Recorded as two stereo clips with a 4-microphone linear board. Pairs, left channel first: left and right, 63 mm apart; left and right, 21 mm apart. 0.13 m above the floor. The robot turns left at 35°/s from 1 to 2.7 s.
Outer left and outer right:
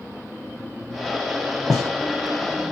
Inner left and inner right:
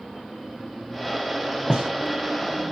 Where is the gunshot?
65° right (ahead or behind), 3 m; by 1.9 s 70° right (ahead or behind), 3 m.